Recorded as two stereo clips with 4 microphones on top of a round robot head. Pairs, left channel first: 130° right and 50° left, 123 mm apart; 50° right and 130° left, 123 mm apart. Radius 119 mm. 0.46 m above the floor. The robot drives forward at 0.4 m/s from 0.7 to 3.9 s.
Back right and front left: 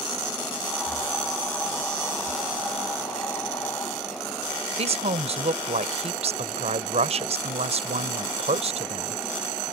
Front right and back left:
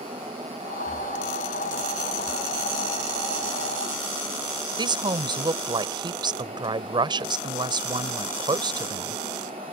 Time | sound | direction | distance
4.8 | a woman speaking | 80° left | ?